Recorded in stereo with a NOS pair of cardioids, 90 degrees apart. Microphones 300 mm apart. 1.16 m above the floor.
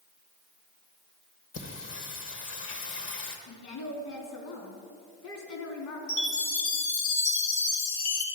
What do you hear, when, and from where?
1.5 s singing: 45° left, 1.2 m
3.5 s a woman speaking: 70° left, 2.5 m
6.1 s a chime: 70° left, 3 m